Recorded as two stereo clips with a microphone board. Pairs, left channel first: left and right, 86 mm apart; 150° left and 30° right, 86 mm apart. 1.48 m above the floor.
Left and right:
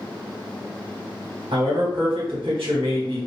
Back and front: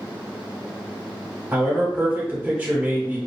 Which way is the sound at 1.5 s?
100° right.